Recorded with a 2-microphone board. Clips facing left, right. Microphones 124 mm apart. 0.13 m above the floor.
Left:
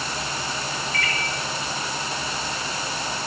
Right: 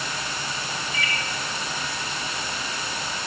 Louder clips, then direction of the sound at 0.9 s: Left 2 dB; 5° right (ahead or behind).